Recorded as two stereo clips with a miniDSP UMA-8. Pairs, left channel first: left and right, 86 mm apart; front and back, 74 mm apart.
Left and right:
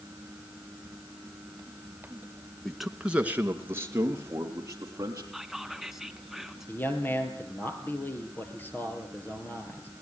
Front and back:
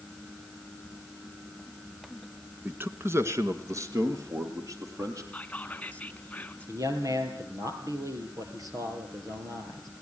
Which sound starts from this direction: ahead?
Whispering, at 5.3 s.